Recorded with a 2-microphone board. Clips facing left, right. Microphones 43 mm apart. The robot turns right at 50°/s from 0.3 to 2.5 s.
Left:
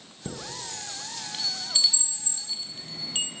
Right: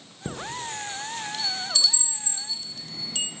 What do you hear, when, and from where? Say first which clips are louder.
0.2 s a chime: right 5 dB; 15° right (ahead or behind), 0.5 m; by 3.3 s 30° left (ahead or behind), 0.5 m